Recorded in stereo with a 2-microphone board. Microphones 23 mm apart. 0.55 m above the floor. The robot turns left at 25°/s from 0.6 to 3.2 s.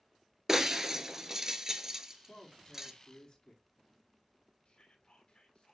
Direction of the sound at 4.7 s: 50° left (ahead or behind).